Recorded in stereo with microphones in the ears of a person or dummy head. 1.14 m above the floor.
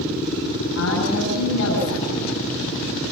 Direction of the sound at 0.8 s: 85° left.